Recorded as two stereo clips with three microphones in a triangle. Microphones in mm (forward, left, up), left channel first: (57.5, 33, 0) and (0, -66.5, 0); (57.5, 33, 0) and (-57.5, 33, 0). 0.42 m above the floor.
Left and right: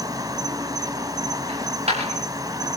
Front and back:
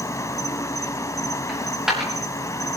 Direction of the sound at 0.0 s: 60° right.